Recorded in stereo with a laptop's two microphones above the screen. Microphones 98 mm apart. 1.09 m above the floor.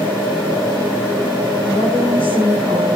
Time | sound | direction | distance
1.7 | a woman speaking | 65° left (ahead or behind) | 5 m